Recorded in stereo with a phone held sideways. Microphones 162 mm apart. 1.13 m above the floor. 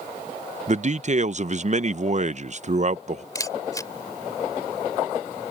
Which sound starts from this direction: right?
A man speaking, at 0.7 s.